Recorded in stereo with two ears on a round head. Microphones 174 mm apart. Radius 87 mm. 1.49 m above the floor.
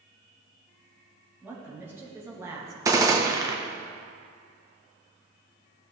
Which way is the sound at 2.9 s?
15° right (ahead or behind).